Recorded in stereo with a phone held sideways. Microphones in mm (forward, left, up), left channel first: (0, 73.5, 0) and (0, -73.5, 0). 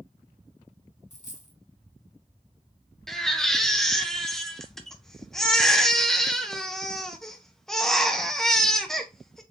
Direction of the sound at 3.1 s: 5° left (ahead or behind).